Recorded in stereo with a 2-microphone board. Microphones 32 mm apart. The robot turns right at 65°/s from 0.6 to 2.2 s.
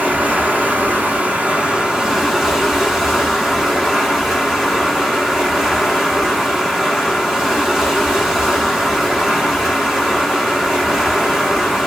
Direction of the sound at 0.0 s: 115° right.